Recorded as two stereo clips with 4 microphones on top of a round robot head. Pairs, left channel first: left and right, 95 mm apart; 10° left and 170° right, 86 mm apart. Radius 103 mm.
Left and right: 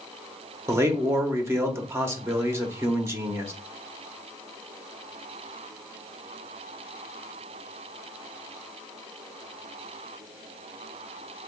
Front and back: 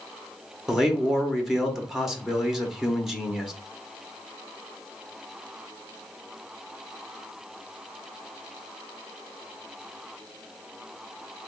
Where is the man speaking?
90° right, 0.8 m.